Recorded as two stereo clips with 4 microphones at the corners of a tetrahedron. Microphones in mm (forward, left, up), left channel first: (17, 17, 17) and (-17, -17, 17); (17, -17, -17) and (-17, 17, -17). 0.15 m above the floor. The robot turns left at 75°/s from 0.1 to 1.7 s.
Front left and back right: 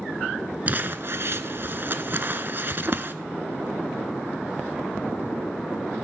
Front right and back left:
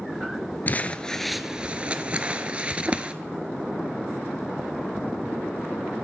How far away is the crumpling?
About 0.6 m.